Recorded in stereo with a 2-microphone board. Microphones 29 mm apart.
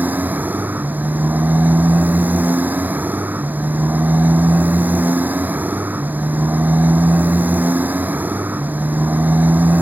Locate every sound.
0.0 s a motorcycle: 85° right